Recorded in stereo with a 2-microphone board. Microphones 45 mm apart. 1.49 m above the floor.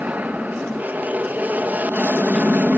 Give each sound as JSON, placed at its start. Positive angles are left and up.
{"t": 0.0, "sound": "an aircraft", "side_deg": -40}